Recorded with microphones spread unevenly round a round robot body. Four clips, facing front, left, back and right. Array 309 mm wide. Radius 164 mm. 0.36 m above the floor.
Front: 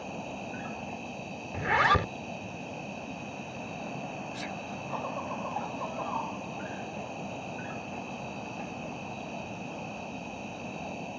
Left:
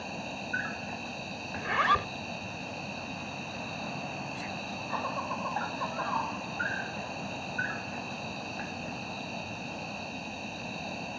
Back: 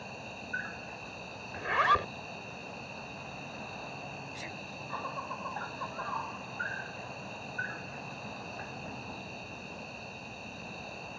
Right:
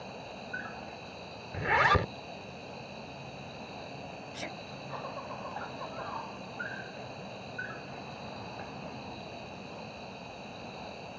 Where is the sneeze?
70° right.